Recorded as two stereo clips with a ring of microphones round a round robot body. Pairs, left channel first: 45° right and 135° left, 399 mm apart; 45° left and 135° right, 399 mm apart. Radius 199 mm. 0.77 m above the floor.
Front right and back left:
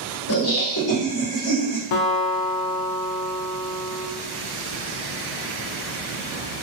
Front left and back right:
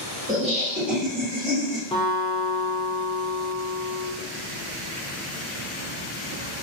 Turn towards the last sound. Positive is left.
turn(degrees=-35)